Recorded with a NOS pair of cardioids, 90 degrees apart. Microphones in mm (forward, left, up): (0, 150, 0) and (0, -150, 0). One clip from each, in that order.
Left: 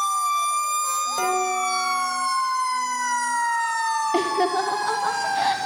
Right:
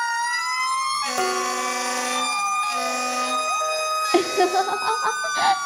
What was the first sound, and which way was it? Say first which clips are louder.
Dishes clattering: left 1 dB; 30° right.